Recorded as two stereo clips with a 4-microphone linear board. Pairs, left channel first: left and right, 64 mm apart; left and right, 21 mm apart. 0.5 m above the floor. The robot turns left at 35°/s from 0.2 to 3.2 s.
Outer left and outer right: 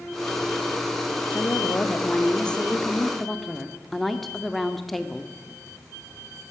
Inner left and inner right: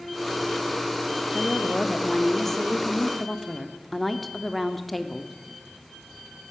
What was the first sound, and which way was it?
A woman speaking, 25° left (ahead or behind).